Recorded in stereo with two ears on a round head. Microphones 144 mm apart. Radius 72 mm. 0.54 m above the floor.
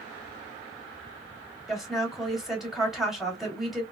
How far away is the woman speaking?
About 2.5 m.